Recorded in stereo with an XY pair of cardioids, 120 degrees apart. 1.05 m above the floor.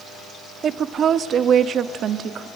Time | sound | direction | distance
0.6 | a woman speaking | 45° right | 1.0 m